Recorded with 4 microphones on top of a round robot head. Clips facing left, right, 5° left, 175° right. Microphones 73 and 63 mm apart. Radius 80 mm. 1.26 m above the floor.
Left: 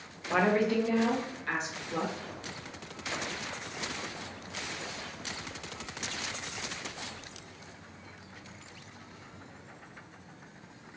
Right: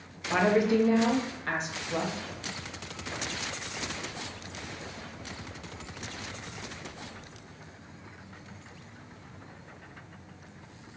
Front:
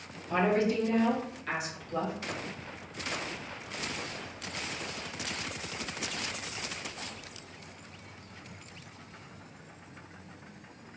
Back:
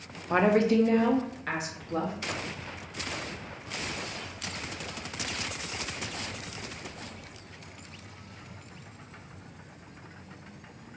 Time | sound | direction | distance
0.3 | a woman speaking | 165° left | 0.6 m